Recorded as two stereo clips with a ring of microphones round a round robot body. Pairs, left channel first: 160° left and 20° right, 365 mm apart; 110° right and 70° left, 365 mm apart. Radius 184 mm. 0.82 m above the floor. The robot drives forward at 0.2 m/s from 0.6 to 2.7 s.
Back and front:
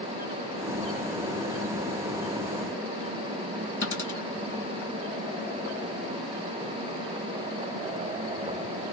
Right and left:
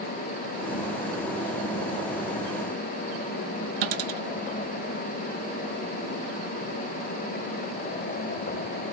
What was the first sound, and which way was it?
A dropped coin, 75° left.